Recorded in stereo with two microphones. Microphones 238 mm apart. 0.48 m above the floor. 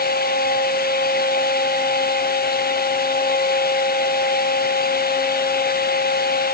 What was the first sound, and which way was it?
Only background noise.